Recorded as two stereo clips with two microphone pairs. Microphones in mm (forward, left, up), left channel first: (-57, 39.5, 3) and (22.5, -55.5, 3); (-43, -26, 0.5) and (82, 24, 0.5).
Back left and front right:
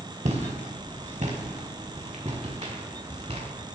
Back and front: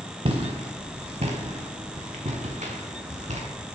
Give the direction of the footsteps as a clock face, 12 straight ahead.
1 o'clock.